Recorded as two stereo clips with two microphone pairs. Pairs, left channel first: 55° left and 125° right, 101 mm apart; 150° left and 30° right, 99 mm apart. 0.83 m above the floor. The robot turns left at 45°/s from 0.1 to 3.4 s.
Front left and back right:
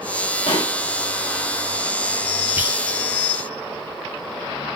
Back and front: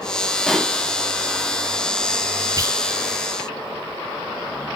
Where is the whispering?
60° right, 0.6 m; by 2.8 s 70° right, 0.6 m.